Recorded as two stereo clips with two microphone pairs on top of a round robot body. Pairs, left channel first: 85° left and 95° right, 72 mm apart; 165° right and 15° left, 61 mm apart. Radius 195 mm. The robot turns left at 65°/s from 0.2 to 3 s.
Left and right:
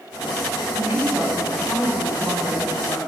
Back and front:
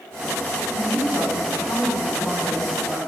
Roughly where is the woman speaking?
Behind right.